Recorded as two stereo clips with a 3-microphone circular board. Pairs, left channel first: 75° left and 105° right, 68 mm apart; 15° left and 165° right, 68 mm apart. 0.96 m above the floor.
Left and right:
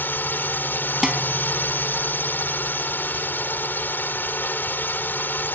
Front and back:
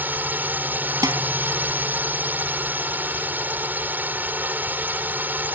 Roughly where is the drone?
Behind left.